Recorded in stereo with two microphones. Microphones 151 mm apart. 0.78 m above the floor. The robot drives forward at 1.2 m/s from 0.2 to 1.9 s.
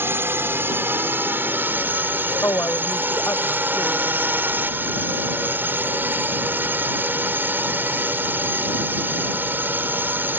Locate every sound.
0.0 s a drone: 15° right (ahead or behind); by 10.4 s 10° right (ahead or behind)
2.4 s a woman speaking: 20° left (ahead or behind)